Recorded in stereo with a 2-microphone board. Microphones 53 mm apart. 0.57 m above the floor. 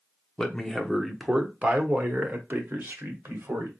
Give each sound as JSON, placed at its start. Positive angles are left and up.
{"t": 0.4, "sound": "a man speaking", "side_deg": 15, "distance_m": 0.9}